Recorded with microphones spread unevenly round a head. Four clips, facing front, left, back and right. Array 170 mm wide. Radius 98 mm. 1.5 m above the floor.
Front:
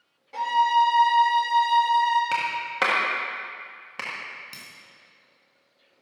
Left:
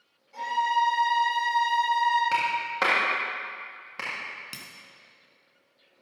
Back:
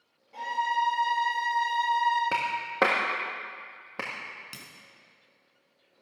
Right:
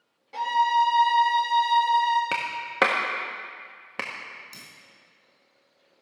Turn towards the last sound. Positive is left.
turn(degrees=95)